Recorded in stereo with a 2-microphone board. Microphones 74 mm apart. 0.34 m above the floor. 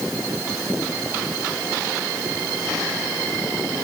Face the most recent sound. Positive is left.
No sound to turn to.